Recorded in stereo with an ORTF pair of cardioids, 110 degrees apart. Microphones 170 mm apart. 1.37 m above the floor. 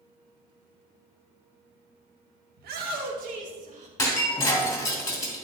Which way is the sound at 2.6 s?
65° right.